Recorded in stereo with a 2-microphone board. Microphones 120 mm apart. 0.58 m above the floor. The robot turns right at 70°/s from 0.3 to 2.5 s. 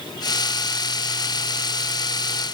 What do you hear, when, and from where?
Only background noise.